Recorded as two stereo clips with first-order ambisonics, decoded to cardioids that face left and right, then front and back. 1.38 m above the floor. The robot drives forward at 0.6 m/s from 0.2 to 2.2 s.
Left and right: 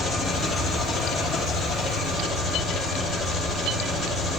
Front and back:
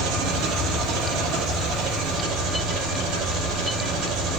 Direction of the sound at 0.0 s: Straight behind.